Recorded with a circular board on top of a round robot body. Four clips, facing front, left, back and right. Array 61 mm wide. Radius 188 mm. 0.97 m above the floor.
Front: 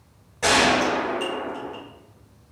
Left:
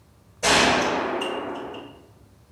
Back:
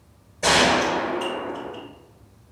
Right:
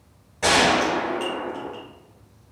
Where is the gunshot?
45° right, 1.1 m.